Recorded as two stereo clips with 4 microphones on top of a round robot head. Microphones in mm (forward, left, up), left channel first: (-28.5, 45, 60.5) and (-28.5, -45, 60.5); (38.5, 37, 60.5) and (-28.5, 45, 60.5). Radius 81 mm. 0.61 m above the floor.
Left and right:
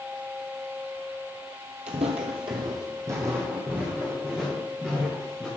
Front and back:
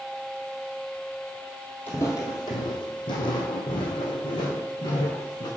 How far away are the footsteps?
About 1.2 m.